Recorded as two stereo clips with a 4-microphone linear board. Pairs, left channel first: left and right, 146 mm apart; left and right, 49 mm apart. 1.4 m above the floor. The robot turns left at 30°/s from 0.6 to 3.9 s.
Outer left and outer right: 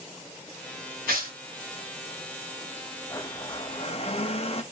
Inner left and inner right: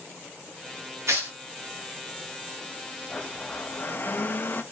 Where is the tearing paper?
85° right, 3 m; by 1.4 s 75° right (ahead or behind), 3 m.